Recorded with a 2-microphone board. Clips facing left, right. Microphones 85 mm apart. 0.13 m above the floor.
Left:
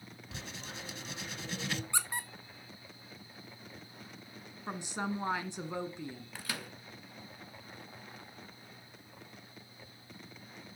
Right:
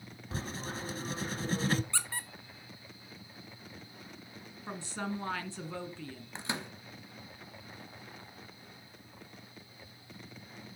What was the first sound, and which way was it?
Writing, 40° right (ahead or behind).